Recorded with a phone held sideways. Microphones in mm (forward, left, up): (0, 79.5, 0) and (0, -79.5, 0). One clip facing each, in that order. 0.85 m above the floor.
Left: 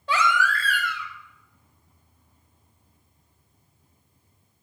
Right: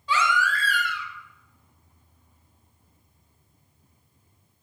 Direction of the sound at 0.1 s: 55° left (ahead or behind).